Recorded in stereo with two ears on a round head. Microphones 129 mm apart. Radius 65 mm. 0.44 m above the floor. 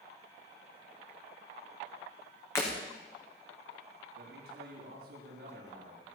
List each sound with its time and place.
2.5 s breaking glass: 20° left (ahead or behind), 4.5 m
4.2 s a man speaking: 80° right, 6 m